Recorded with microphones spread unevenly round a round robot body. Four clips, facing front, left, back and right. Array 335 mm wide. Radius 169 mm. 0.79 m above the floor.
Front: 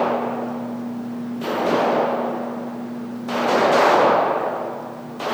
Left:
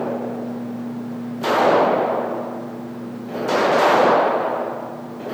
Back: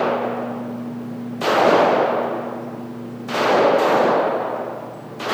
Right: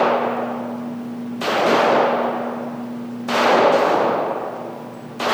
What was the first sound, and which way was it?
Only background noise.